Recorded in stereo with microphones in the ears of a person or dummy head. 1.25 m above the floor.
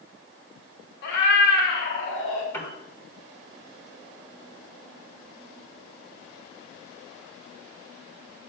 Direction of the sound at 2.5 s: 15° left (ahead or behind).